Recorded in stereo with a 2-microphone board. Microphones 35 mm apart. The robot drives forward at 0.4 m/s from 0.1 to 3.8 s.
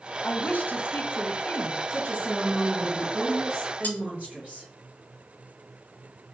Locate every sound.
0.2 s a woman speaking: 55° left (ahead or behind), 0.8 m; by 1.8 s 70° left (ahead or behind), 0.7 m
1.9 s a woman speaking: 60° right (ahead or behind), 1.6 m; by 4.7 s 45° right (ahead or behind), 2.0 m
3.8 s cutlery clinking: 50° left (ahead or behind), 1.0 m